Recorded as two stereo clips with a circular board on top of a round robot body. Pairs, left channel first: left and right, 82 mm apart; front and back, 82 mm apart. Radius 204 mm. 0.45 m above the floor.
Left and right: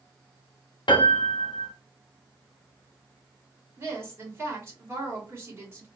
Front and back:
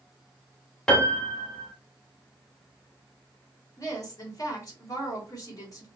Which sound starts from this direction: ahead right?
A woman speaking, at 3.8 s.